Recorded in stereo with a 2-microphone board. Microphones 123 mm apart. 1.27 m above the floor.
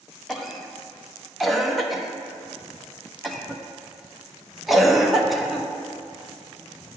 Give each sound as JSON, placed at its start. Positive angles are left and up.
{"t": 0.3, "sound": "a cough", "side_deg": 0, "distance_m": 0.8}